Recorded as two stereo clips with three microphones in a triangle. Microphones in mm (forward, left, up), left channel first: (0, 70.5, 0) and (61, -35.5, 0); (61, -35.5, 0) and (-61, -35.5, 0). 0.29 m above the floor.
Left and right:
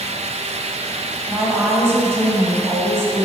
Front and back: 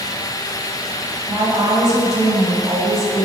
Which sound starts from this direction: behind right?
A woman speaking, at 1.3 s.